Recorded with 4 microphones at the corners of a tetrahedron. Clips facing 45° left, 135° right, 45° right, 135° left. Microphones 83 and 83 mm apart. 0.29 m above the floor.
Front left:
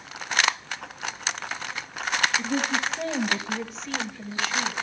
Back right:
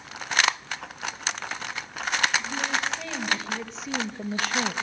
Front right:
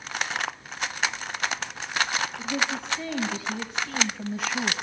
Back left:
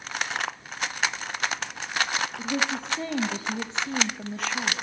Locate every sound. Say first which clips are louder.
2.4 s a woman speaking: front left 2 dB, back left 1 dB; 85° left, 2.5 m; by 4.7 s 120° right, 1.5 m